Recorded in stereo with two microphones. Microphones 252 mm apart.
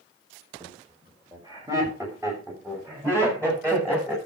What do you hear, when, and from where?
0.6 s laughter: 15° right (ahead or behind), 4.5 m; by 4.2 s 10° right (ahead or behind), 9 m